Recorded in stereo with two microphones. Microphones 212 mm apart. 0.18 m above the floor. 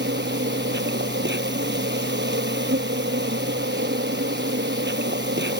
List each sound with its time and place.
0.0 s an insect: 60° right (ahead or behind)